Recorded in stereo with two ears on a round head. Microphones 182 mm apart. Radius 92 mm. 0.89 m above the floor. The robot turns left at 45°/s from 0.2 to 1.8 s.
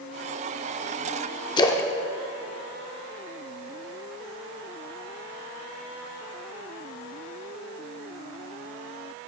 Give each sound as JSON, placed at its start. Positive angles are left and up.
{"t": 1.6, "sound": "a splash", "side_deg": 20, "distance_m": 0.6}